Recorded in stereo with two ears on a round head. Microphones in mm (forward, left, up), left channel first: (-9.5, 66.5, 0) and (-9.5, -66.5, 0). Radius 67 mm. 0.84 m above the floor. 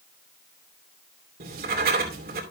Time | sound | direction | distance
1.4 | writing | 70° right (ahead or behind) | 2.5 m